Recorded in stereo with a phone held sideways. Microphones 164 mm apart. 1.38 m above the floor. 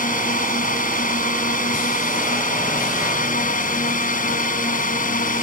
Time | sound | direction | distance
0.0 | a drone | 60° left (ahead or behind) | ?